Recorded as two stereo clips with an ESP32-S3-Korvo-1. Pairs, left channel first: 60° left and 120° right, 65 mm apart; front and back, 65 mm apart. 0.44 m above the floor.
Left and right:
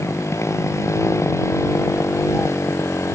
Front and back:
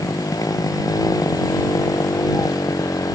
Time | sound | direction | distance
0.0 | a motorcycle | 20° left | ?